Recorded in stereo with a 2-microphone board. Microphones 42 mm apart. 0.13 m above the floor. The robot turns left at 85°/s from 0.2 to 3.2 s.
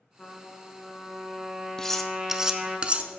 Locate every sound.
0.2 s a trumpet: 20° left (ahead or behind), 1.5 m; by 2.8 s 15° right (ahead or behind), 1.5 m
1.8 s cutlery clinking: 15° left (ahead or behind), 0.7 m; by 3.1 s 30° right (ahead or behind), 0.7 m